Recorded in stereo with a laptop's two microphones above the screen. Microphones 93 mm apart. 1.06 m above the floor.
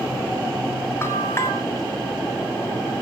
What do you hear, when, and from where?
1.0 s a bell: 30° left (ahead or behind), 2.5 m